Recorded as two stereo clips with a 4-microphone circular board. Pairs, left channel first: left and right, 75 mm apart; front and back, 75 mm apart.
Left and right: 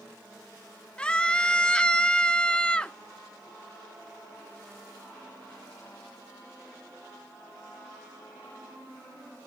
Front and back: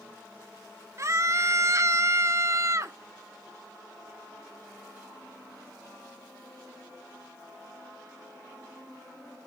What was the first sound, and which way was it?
A scream, 160° left.